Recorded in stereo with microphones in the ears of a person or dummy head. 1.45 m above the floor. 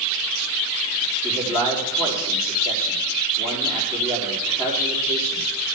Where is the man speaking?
20° left (ahead or behind), 4 m.